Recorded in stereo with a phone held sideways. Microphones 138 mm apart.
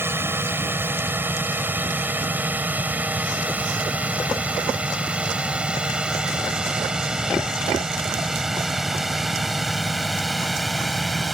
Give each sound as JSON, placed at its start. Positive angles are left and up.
{"t": 0.0, "sound": "a drone", "side_deg": -15}